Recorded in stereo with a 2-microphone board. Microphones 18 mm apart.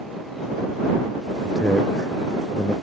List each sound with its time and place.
1.4 s a man speaking: 35° left (ahead or behind); by 2.7 s 40° left (ahead or behind)